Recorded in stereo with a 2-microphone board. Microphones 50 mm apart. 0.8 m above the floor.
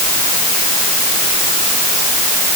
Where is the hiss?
I don't hear a hiss.